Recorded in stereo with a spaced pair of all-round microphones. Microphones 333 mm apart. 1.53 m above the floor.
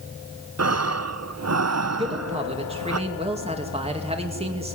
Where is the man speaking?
15° right (ahead or behind), 2.5 m.